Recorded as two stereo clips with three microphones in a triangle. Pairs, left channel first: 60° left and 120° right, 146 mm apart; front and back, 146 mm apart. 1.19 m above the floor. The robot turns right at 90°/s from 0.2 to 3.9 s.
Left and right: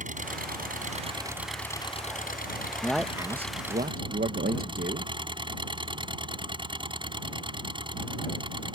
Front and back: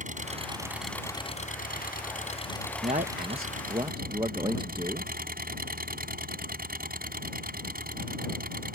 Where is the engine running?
150° right; by 8.8 s 175° right.